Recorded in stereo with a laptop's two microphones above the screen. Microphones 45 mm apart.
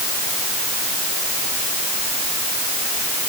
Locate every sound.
Only background noise.